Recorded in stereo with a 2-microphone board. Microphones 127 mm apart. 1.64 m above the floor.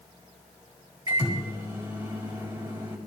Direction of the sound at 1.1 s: 35° right (ahead or behind).